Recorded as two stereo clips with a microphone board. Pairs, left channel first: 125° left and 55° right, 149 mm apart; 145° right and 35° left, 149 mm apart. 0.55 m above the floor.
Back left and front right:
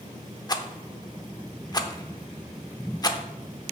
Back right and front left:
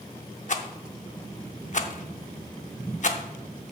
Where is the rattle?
175° right, 0.7 m.